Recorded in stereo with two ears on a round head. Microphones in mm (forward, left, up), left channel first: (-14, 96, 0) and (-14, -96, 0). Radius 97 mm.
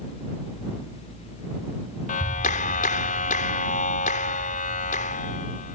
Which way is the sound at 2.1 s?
35° left (ahead or behind).